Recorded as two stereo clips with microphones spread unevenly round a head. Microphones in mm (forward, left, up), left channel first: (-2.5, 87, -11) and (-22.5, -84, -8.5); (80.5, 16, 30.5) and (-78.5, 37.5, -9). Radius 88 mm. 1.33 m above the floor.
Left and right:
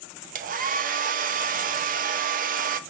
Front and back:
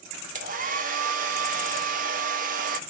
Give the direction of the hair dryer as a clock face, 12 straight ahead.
5 o'clock.